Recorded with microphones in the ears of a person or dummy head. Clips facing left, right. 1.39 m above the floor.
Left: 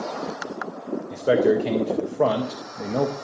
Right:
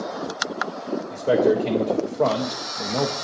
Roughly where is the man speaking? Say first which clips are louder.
Even; centre.